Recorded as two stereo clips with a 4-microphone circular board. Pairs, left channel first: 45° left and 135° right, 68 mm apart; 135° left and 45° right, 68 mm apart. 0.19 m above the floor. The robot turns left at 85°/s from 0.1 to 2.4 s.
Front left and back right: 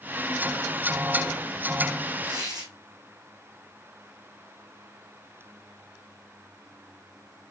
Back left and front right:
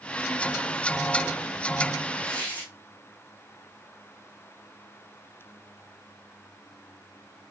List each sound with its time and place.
2.2 s tearing paper: 140° right, 2.5 m; by 2.7 s 155° right, 2.5 m